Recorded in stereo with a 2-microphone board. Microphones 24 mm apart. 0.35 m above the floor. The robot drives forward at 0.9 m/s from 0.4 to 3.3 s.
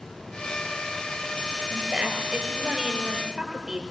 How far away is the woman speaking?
About 6 m.